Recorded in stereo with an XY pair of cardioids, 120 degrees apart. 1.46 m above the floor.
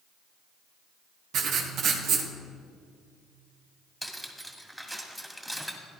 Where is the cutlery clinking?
5° right, 2 m.